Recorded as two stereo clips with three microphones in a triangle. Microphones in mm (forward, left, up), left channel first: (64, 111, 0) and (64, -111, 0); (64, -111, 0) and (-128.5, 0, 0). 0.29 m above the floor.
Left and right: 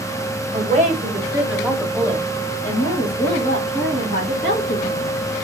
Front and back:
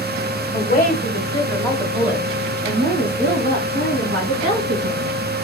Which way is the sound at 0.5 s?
55° right.